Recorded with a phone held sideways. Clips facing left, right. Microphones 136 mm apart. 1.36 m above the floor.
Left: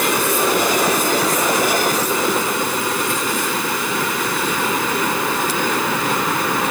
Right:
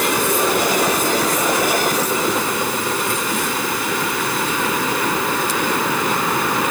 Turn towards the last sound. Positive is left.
No sound to turn to.